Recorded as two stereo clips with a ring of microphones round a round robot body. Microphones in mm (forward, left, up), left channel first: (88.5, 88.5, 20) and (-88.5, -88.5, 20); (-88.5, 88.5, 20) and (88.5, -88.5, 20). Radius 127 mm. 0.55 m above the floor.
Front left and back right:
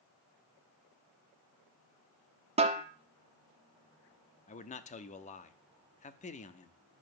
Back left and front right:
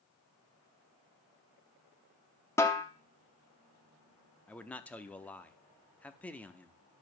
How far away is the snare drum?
About 1.1 m.